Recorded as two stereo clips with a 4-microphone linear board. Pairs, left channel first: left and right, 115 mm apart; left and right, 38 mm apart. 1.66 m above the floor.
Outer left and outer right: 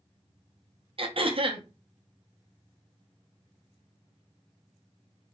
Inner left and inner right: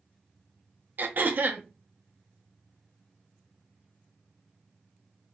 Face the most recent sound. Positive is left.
turn(degrees=-55)  # may be behind; listen again after turning